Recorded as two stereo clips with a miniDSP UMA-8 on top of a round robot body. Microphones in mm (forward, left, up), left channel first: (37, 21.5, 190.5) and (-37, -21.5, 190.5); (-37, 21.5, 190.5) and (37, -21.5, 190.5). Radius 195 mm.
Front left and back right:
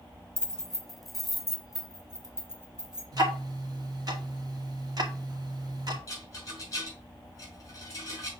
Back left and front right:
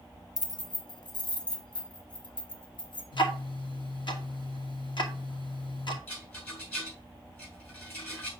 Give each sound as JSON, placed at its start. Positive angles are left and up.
{"t": 0.4, "sound": "keys jangling", "azimuth_deg": 110, "distance_m": 0.7}
{"t": 3.1, "sound": "ticking", "azimuth_deg": 170, "distance_m": 2.5}
{"t": 6.1, "sound": "a rattle", "azimuth_deg": 85, "distance_m": 5.5}